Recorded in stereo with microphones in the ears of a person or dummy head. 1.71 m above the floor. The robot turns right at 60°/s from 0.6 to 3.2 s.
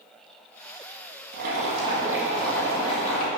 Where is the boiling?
60° right, 1.8 m; by 3.3 s 50° left, 1.8 m.